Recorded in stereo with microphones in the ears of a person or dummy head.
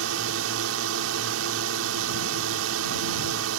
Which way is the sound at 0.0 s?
70° right (ahead or behind).